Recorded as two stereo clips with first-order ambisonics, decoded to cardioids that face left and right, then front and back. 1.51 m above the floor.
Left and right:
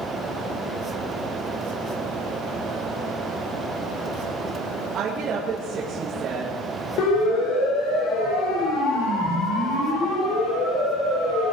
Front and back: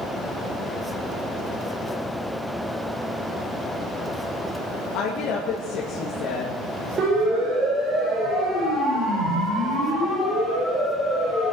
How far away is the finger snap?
No finger snap in this recording.